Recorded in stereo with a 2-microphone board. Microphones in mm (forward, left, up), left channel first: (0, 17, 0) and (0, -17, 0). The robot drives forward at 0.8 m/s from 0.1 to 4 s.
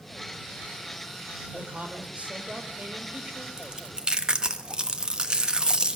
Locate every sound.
1.5 s a man speaking: 55° right (ahead or behind), 2.5 m; by 3.5 s 35° right (ahead or behind), 3.5 m
3.6 s chewing: 25° right (ahead or behind), 1.5 m; by 6.0 s 30° right (ahead or behind), 1.2 m